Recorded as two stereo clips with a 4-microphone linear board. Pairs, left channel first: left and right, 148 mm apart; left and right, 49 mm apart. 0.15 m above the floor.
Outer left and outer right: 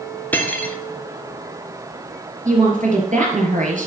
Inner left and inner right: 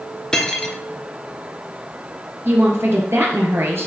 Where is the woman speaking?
60° right (ahead or behind), 3 m.